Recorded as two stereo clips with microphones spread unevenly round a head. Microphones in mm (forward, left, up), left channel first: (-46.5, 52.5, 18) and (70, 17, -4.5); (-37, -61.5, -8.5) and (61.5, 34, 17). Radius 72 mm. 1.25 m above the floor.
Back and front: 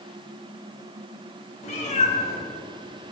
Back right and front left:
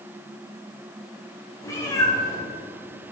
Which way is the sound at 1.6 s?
150° left.